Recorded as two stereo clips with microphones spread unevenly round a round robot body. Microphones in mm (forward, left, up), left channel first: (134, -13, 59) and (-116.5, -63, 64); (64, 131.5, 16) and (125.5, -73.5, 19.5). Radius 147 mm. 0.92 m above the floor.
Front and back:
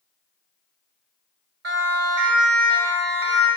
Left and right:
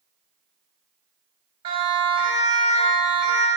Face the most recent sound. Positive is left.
turn(degrees=-140)